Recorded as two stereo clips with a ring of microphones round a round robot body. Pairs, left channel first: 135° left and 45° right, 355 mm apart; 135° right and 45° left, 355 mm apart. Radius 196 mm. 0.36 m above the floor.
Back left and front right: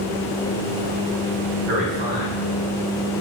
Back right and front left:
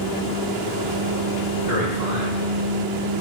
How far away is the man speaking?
About 3.5 m.